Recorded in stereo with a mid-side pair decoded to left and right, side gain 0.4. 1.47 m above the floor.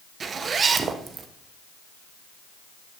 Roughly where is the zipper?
Ahead right.